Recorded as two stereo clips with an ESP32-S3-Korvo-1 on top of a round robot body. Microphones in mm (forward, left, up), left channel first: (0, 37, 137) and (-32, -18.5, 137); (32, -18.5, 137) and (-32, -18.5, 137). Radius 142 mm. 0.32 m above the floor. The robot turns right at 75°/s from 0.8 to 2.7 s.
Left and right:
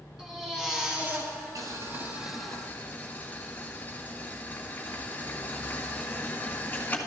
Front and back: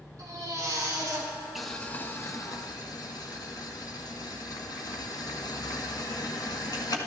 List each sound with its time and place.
0.2 s a baby crying: 155° left, 3.5 m; by 1.3 s 165° right, 3.5 m
1.6 s boiling: 95° right, 1.9 m; by 7.0 s 5° right, 1.9 m